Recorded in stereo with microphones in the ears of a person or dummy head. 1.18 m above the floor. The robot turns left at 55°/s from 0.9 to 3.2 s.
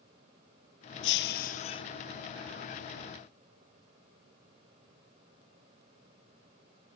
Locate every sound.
1.0 s breaking glass: 70° left; by 1.8 s 30° left